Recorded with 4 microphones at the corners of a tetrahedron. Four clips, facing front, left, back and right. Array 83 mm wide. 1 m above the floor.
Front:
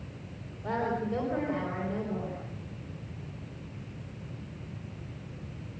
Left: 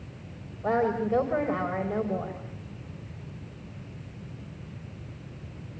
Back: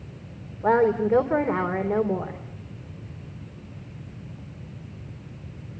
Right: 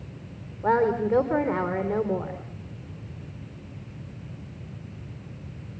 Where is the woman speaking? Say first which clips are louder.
Right 4 dB, back 11 dB; 145° right, 4 m.